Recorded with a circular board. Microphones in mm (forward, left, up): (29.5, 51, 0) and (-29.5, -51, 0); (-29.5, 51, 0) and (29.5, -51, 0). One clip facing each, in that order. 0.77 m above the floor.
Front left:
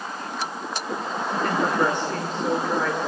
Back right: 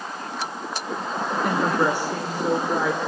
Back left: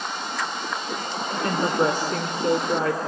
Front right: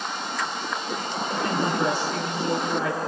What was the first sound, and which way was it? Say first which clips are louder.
A woman speaking: back right 1 dB, back left 3 dB; 160° left.